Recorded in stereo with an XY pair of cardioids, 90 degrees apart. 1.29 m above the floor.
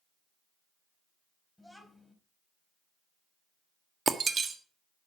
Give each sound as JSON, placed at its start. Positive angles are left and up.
{"t": 1.6, "sound": "a child speaking", "azimuth_deg": 5, "distance_m": 4.0}
{"t": 4.1, "sound": "breaking glass", "azimuth_deg": -45, "distance_m": 1.5}